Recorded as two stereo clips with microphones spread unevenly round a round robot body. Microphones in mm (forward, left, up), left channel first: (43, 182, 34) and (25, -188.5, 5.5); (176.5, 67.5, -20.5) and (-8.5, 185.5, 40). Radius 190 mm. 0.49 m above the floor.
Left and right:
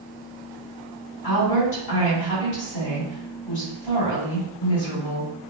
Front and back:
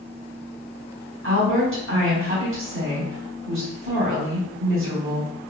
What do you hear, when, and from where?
1.2 s a woman speaking: 115° left, 1.5 m